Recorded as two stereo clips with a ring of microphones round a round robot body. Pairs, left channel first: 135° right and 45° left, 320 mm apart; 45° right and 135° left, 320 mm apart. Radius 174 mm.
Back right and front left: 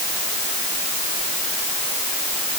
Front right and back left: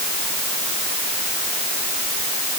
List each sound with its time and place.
Only background noise.